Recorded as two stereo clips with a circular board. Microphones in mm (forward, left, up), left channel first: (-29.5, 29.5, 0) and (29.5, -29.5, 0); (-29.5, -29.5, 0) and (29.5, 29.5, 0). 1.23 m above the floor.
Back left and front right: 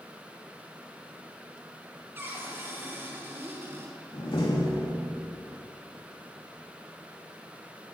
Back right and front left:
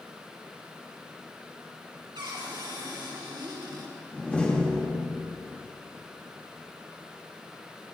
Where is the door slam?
150° left, 2.5 m.